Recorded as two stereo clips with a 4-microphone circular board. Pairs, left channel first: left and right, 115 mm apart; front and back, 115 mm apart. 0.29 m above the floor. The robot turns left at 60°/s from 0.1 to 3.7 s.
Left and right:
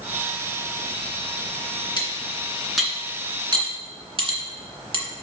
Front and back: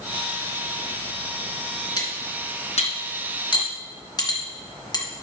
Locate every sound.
2.0 s cutlery clinking: 50° left, 2.5 m; by 5.0 s 55° right, 2.5 m